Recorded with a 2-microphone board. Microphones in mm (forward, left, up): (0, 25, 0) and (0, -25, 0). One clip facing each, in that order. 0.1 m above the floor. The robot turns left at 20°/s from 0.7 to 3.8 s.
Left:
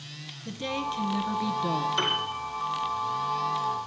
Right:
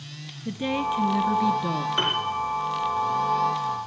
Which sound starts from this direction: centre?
A woman speaking, at 0.5 s.